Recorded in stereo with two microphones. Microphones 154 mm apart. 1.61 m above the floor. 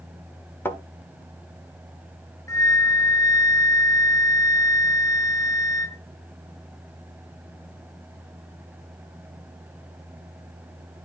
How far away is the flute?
About 0.9 m.